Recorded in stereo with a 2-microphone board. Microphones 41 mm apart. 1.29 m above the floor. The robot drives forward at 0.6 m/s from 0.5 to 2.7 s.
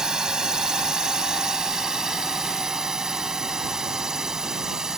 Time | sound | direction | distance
0.0 | a drone | 20° right (ahead or behind) | ?